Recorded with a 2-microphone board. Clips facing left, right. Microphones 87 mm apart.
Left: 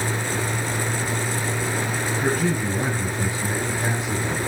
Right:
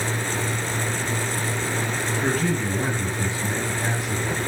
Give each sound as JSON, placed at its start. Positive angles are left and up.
{"t": 2.2, "sound": "a man speaking", "side_deg": 15, "distance_m": 6.5}